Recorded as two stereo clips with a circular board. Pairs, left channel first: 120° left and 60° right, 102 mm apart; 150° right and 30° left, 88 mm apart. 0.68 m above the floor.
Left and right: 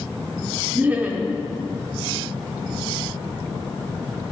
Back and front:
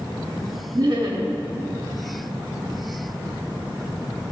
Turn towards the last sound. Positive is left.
turn(degrees=10)